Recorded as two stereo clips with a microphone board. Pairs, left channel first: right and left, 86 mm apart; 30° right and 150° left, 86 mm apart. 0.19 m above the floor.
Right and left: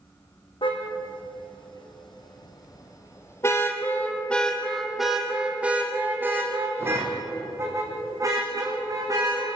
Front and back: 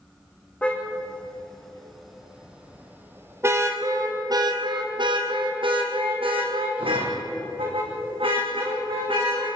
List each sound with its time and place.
0.6 s a car horn: 105° right, 4.5 m; by 9.5 s 135° left, 6.5 m